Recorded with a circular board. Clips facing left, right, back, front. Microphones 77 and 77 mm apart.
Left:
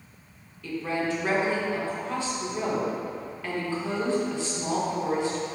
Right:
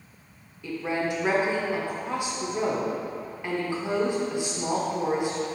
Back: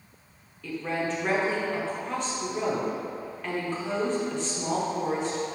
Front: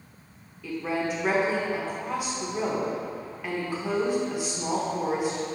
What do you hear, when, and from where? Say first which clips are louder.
0.6 s a woman speaking: even, front 1 dB; 60° right, 0.8 m